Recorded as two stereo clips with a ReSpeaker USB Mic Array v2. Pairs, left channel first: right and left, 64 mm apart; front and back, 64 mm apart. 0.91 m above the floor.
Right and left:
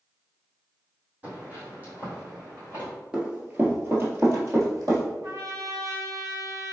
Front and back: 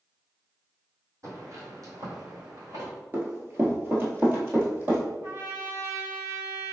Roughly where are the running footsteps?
Behind.